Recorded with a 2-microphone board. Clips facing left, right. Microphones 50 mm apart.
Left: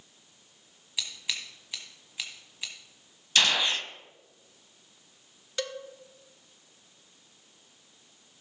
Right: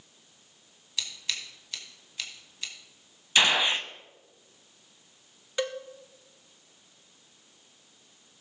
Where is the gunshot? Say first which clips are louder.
Right 2 dB; 20° right (ahead or behind), 0.6 m.